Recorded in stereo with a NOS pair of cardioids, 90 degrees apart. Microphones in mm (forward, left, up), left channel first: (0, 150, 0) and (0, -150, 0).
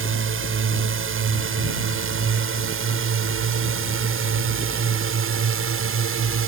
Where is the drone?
45° right; by 6.5 s 50° right.